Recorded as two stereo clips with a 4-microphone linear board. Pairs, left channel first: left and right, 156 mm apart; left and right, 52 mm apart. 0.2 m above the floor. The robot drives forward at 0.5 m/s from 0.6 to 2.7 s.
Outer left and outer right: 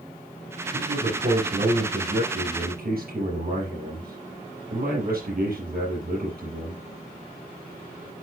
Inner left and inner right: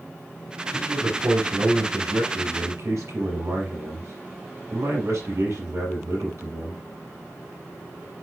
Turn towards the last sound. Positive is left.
turn(degrees=-75)  # may be behind; listen again after turning